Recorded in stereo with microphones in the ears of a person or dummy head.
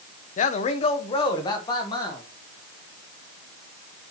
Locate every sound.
0.4 s a man speaking: 40° left (ahead or behind), 0.6 m; by 2.2 s 20° left (ahead or behind), 1.6 m